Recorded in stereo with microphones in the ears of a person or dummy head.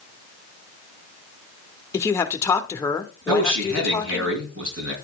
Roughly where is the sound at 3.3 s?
Right.